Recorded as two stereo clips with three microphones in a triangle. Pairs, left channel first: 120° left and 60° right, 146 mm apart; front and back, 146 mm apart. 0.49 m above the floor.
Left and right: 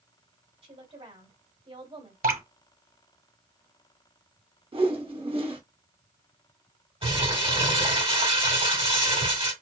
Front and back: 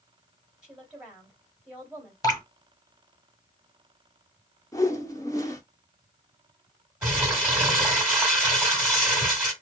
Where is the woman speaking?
100° right, 1.9 m.